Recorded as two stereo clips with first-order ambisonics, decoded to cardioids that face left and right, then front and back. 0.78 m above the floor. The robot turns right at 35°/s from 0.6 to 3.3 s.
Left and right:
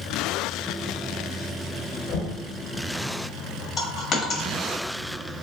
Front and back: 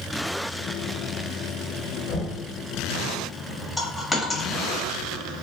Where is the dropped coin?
95° left, 0.6 m.